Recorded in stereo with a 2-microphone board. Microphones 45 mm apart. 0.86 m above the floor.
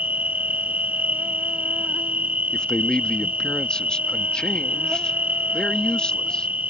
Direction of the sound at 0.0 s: 40° right (ahead or behind).